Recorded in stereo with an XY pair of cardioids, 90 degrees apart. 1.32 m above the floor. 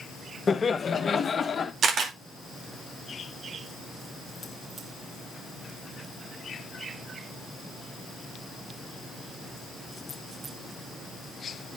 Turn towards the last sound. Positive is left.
turn(degrees=-65)